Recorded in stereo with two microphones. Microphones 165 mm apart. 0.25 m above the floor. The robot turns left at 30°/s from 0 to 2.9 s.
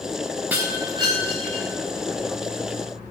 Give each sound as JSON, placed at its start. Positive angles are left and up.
{"t": 0.5, "sound": "breaking glass", "side_deg": -10, "distance_m": 3.0}